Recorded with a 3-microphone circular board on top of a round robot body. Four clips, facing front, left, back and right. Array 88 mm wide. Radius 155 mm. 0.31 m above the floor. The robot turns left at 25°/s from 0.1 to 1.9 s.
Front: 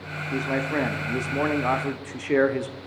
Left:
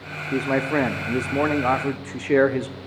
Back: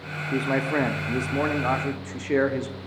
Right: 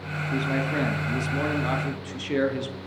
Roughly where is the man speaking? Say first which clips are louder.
Left 5 dB, back 2 dB; behind left.